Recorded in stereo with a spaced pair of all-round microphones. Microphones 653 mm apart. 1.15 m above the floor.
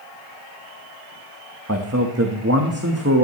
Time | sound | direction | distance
1.7 | a man speaking | 20° right (ahead or behind) | 1.4 m